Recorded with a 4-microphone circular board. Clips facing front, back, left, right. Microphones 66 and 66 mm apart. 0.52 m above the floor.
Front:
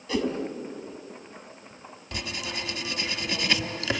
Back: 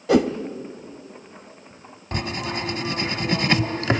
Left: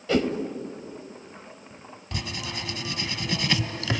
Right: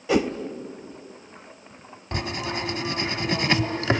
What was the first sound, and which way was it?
A whoosh, 165° right.